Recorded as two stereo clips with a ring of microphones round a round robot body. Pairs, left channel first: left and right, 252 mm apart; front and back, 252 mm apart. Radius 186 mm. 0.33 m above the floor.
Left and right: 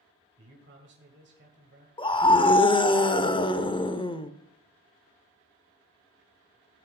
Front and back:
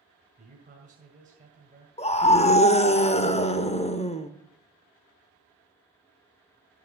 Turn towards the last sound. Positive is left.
turn(degrees=35)